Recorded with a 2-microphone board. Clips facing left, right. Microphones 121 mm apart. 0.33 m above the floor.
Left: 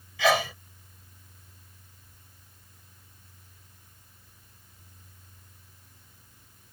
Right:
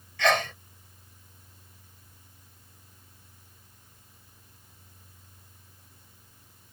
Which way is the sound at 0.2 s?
5° left (ahead or behind).